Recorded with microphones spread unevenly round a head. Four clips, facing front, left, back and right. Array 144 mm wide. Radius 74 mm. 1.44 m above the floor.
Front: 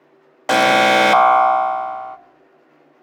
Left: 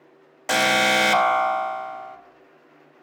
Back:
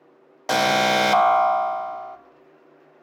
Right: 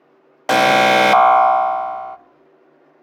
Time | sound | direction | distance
0.5 | an alarm | 70° right | 0.8 m